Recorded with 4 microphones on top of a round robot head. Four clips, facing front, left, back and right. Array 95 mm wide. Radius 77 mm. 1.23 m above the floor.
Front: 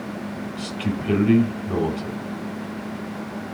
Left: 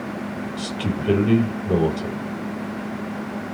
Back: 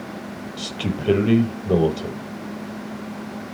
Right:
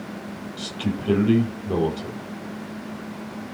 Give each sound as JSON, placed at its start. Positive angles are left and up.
{"t": 0.6, "sound": "a man speaking", "azimuth_deg": 160, "distance_m": 5.0}